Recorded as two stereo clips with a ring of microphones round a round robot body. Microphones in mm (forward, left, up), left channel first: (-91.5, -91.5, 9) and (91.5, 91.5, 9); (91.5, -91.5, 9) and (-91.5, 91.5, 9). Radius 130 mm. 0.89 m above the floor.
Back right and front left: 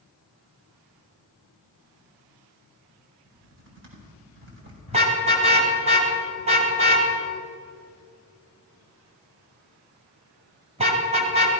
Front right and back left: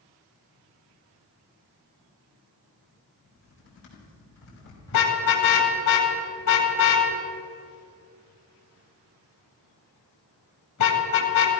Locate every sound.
3.2 s typing on a keyboard: straight ahead, 4.5 m
4.9 s a car horn: 20° right, 2.5 m